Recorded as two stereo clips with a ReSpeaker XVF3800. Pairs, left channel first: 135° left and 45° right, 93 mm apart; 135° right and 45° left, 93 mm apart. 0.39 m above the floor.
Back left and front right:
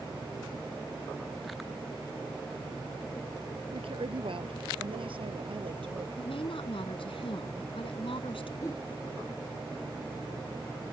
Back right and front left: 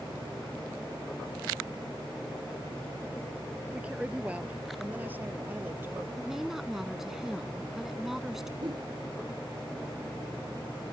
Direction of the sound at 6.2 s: 130° left.